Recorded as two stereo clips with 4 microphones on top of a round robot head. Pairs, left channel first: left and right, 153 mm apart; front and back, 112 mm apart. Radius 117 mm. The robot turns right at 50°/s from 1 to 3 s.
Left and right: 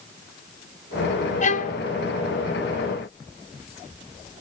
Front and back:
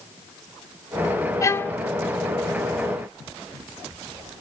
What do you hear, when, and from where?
1.4 s a violin: 60° left, 1.1 m; by 1.8 s 80° left, 1.1 m